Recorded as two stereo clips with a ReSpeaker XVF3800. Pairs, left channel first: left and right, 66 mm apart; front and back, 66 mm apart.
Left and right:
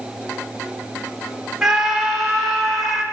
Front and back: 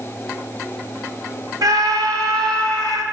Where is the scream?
170° right, 3 m; by 3.0 s 175° right, 4 m.